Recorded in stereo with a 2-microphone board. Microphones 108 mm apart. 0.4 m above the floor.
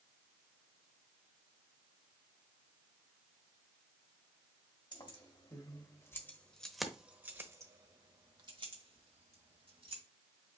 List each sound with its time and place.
4.9 s keys jangling: 50° left (ahead or behind), 1.5 m; by 10.0 s 65° right (ahead or behind), 2 m